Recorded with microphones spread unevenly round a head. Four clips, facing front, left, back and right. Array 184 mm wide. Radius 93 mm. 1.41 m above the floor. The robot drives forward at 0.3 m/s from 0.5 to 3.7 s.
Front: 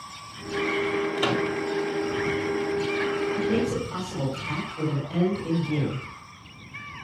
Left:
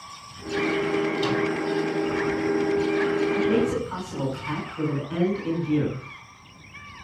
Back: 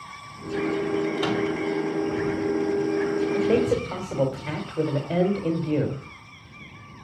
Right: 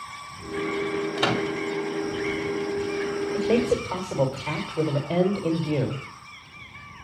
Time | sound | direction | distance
1.2 | a microwave | 60° right | 3 m
3.3 | a man speaking | 135° right | 4.5 m